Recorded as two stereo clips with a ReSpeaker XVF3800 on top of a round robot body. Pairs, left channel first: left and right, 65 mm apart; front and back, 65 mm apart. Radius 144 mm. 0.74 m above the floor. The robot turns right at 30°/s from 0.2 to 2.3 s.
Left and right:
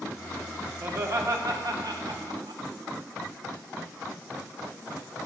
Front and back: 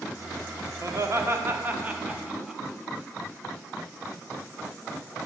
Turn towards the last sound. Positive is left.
turn(degrees=-100)